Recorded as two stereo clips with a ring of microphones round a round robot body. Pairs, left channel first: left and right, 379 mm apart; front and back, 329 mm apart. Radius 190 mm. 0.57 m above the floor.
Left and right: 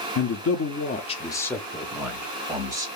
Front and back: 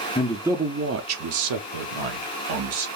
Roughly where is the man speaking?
Left.